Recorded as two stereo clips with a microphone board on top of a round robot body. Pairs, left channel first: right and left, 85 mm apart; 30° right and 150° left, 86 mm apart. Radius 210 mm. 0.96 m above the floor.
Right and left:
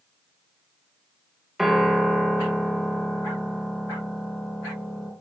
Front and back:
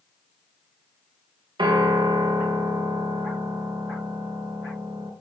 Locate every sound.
1.6 s a piano: 175° left, 1.1 m